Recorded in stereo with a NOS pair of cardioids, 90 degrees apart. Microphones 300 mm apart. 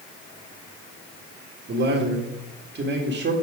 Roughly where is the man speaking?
Ahead right.